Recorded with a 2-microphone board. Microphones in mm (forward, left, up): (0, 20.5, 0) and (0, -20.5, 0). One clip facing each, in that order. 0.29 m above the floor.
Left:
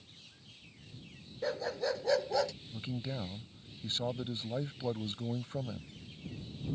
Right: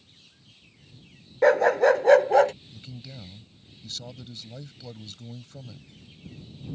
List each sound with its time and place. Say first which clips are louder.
1.4 s a dog barking: right 16 dB; 60° right (ahead or behind); by 2.5 s 40° right (ahead or behind)
2.7 s a man speaking: left 5 dB; 30° left (ahead or behind)